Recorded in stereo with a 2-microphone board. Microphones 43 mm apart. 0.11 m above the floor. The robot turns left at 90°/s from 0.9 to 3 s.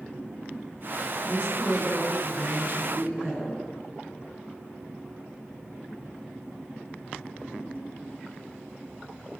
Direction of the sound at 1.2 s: 95° left.